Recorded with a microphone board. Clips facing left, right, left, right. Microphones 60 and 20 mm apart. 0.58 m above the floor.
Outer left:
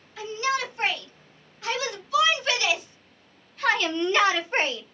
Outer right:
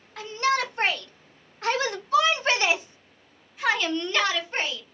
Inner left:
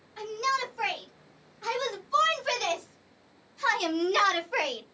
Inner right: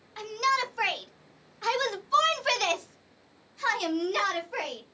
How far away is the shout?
About 2 m.